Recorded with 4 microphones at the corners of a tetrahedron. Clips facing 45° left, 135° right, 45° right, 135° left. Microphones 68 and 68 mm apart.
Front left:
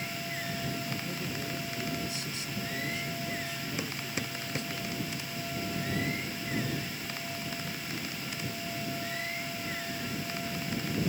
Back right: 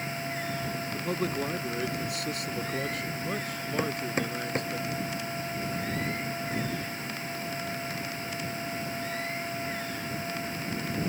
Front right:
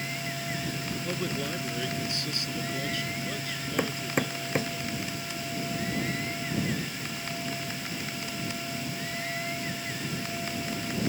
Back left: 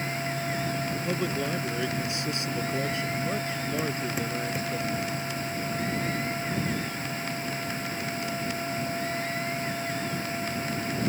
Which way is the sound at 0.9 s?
145° right.